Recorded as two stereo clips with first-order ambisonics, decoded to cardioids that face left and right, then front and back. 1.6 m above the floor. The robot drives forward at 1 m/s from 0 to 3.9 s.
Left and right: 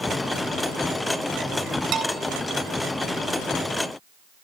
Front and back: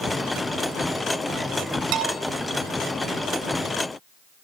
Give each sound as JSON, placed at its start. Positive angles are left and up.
{"t": 1.9, "sound": "a bell", "azimuth_deg": -145, "distance_m": 3.0}